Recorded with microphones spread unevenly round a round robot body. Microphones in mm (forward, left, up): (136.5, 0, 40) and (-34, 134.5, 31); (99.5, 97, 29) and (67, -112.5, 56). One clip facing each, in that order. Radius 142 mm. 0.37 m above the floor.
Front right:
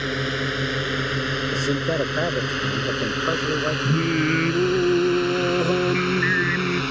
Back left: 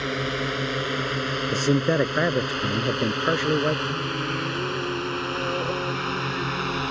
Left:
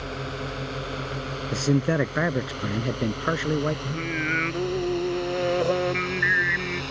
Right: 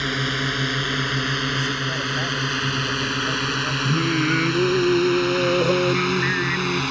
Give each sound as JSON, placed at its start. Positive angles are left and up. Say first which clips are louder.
{"t": 0.0, "sound": "a drone", "louder": "front right 1 dB, right 6 dB", "azimuth_deg": -115}
{"t": 1.5, "sound": "a man speaking", "louder": "back left 4 dB, left 6 dB", "azimuth_deg": 75}
{"t": 3.9, "sound": "singing", "louder": "front right 8 dB, right 8 dB", "azimuth_deg": -55}